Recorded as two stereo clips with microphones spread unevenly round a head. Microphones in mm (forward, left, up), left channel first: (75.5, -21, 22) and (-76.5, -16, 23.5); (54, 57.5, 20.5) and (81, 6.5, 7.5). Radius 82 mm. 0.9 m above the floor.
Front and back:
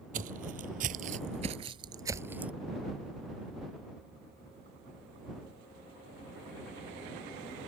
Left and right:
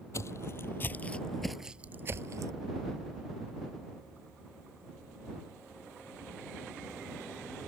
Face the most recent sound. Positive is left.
turn(degrees=-100)